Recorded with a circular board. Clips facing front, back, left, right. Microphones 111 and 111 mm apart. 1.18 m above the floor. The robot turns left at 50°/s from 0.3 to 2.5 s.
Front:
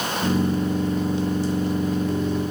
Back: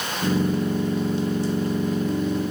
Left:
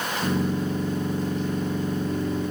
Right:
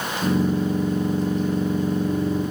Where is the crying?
I don't hear crying.